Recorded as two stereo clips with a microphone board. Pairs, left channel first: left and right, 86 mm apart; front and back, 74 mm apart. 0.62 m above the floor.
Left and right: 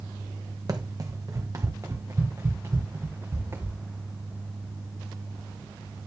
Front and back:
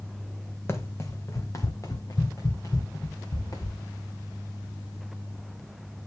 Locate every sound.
0.7 s running footsteps: 55° right, 1.5 m; by 3.8 s 30° right, 3 m